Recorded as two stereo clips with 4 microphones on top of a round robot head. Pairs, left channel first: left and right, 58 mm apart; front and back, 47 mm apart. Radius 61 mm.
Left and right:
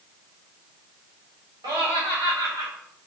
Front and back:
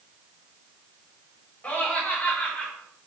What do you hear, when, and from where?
1.6 s laughter: 70° right, 4 m; by 2.7 s 75° right, 3 m